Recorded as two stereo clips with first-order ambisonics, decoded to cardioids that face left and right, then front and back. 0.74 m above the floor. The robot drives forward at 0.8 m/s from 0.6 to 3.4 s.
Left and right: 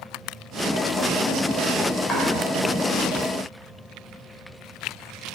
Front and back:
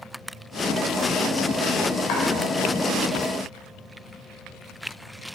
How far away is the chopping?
About 4 m.